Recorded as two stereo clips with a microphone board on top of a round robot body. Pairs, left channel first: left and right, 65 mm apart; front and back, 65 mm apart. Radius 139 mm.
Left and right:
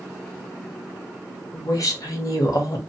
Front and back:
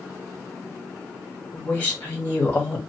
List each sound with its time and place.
1.5 s a woman speaking: 65° left, 1.5 m